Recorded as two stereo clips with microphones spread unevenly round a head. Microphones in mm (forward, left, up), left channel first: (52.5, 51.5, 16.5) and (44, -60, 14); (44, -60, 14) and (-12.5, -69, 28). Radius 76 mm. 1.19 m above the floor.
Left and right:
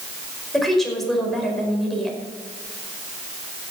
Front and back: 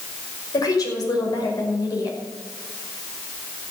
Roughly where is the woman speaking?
Ahead.